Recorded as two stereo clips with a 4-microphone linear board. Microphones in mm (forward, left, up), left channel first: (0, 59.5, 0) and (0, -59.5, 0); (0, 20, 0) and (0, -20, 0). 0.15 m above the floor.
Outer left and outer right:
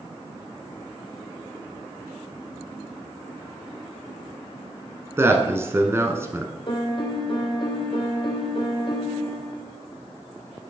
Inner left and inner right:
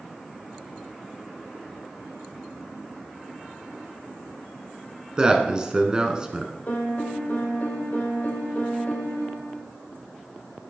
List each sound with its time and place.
5.2 s a man speaking: 25° right (ahead or behind), 1.2 m
6.7 s a piano: 45° left (ahead or behind), 1.7 m